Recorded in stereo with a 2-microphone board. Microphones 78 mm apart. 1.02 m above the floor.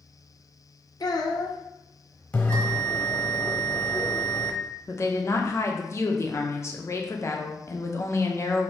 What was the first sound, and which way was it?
A child speaking, 55° left (ahead or behind).